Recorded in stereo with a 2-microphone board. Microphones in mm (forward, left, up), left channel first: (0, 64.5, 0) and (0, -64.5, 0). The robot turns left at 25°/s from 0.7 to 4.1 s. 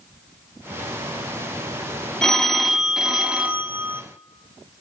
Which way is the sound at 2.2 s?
5° left (ahead or behind).